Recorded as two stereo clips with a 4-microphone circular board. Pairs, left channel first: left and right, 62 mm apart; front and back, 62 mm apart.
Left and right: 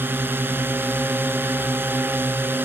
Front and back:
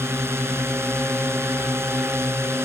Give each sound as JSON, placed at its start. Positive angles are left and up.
{"t": 0.0, "sound": "a drone", "azimuth_deg": -140}